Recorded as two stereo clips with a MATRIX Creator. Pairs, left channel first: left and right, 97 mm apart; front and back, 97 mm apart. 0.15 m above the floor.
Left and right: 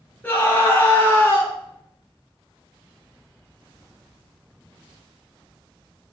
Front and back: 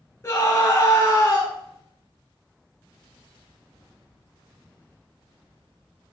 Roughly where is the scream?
Ahead left.